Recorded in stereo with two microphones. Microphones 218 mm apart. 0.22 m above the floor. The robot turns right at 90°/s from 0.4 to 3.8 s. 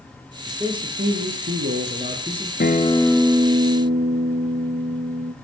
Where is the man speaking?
Straight behind, 4 m; by 2.5 s 5° left, 4 m.